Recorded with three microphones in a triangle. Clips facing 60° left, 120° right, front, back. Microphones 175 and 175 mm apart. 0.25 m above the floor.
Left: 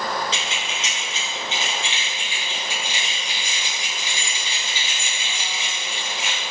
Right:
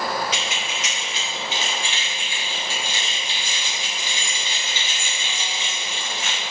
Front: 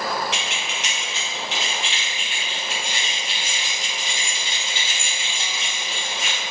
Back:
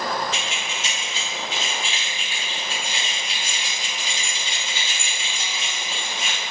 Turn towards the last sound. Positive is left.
turn(degrees=-20)